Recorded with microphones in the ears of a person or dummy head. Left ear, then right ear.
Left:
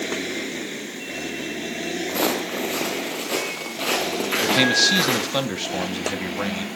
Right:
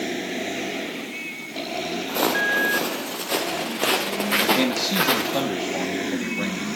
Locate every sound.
2.1 s footsteps: 5° left (ahead or behind), 2.5 m; by 5.4 s 10° right (ahead or behind), 5 m
4.4 s a man speaking: 30° left (ahead or behind), 2.5 m